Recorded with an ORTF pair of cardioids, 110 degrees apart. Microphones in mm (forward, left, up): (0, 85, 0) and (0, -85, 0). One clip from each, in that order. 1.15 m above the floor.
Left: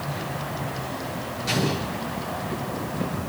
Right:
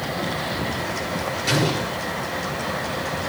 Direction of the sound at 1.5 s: 40° right.